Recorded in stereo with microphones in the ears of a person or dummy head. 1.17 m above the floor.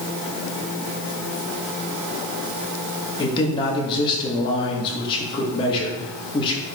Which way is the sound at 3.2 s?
25° left (ahead or behind).